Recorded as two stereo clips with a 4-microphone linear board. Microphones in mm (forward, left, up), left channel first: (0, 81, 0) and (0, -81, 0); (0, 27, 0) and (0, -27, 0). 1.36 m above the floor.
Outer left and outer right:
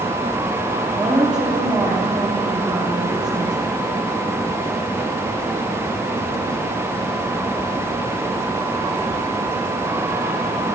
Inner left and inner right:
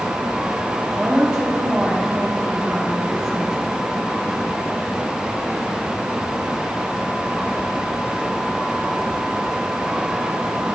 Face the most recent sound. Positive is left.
turn(degrees=-5)  # may be behind; listen again after turning